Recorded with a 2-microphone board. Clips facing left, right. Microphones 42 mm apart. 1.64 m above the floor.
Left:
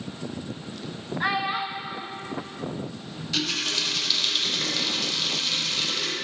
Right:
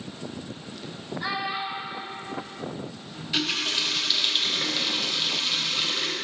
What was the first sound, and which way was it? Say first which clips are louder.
A child speaking: left 4 dB; 45° left (ahead or behind).